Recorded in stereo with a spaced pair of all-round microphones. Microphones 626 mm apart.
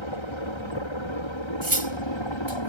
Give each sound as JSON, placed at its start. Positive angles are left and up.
{"t": 0.0, "sound": "a helicopter", "side_deg": 45}
{"t": 1.6, "sound": "cutlery clinking", "side_deg": -35}